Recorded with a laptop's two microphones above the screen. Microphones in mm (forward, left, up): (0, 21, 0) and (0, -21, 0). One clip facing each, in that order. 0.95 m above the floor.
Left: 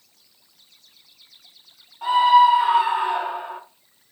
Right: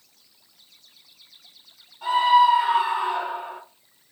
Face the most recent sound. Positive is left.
turn(degrees=35)  # may be behind; listen again after turning